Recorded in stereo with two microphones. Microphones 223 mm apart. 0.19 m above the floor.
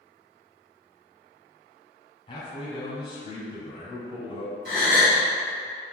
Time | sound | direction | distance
2.3 | a man speaking | 25° left (ahead or behind) | 1.1 m
4.7 | a gasp | 50° right (ahead or behind) | 1.0 m